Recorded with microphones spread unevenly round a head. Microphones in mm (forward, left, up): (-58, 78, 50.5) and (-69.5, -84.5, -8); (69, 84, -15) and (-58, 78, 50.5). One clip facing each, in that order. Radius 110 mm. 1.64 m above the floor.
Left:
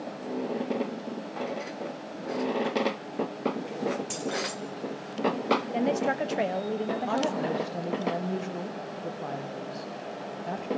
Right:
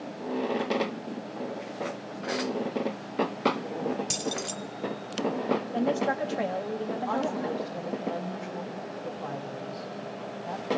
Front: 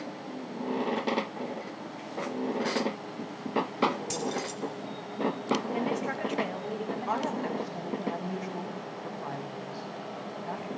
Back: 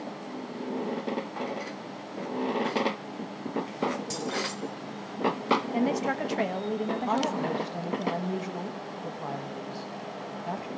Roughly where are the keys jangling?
Behind right.